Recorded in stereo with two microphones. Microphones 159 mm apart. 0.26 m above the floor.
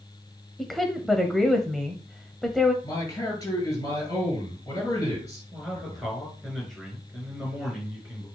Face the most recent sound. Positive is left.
turn(degrees=0)  # may be behind; listen again after turning